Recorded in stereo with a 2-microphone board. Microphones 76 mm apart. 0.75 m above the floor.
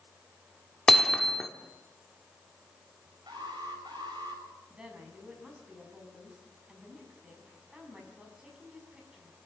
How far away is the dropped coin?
No dropped coin in this recording.